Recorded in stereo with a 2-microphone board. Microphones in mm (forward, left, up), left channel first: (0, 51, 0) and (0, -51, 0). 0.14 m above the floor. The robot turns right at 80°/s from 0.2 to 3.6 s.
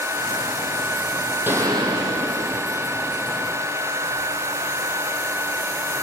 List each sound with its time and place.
1.5 s a gunshot: 160° right, 3 m; by 2.8 s 50° right, 3 m